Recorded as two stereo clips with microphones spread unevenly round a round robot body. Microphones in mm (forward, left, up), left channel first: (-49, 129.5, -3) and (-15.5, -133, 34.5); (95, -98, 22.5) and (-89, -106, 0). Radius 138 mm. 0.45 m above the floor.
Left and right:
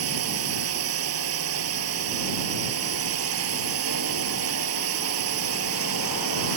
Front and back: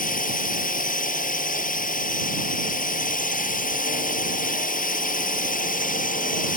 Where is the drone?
40° right.